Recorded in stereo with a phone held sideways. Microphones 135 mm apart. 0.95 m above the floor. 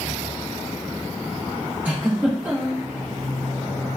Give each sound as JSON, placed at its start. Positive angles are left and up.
{"t": 1.9, "sound": "a giggle", "side_deg": -15, "distance_m": 1.1}